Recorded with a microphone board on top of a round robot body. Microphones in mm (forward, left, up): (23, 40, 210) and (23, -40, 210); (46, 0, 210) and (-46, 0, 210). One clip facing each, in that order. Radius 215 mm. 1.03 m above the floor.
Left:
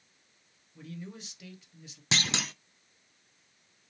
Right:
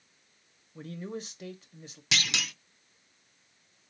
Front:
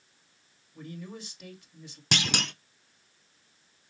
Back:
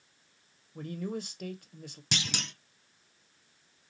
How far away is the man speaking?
About 0.9 m.